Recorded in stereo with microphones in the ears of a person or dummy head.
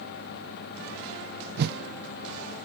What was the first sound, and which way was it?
A whoosh, 55° right (ahead or behind).